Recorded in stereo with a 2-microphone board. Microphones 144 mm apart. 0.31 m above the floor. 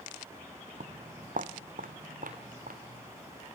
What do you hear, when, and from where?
0.8 s footsteps: 60° right (ahead or behind), 0.6 m; by 3.5 s 75° right (ahead or behind), 2.5 m